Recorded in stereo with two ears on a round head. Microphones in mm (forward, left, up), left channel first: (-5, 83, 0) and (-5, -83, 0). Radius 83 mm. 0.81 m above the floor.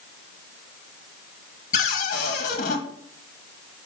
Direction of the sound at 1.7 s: 40° left (ahead or behind).